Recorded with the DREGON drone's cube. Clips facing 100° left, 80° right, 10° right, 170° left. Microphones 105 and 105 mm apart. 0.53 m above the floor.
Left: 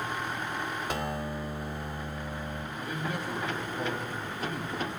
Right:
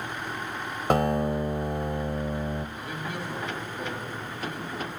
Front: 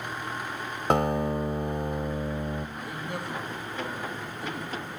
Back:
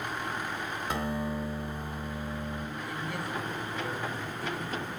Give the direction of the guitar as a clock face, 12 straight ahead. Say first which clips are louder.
Right 9 dB, front 9 dB; 1 o'clock.